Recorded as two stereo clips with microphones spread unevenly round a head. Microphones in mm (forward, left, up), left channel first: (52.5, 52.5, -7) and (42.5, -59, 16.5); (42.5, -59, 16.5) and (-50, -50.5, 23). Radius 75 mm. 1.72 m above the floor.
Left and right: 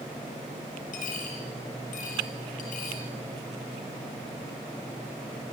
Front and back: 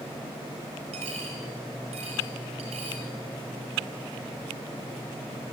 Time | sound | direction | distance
0.9 | a dropped coin | 130° left | 6 m